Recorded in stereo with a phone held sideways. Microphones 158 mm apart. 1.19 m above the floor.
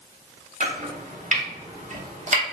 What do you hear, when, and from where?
0.6 s chopping: 50° right (ahead or behind), 0.9 m